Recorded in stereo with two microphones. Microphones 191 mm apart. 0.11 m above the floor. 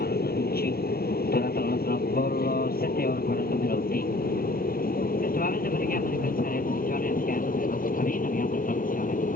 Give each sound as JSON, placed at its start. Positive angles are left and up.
{"t": 0.0, "sound": "an aircraft", "side_deg": 50}